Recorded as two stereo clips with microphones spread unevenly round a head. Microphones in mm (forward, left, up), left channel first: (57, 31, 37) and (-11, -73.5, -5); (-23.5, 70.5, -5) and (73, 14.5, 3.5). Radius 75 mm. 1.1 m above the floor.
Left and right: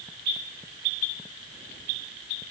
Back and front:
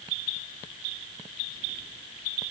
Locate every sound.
Only background noise.